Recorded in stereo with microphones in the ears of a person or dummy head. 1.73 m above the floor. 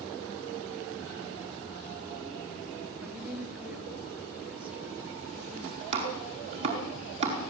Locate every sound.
3.0 s a woman speaking: 5° right (ahead or behind), 3.5 m
5.9 s chopping: 35° right (ahead or behind), 4.5 m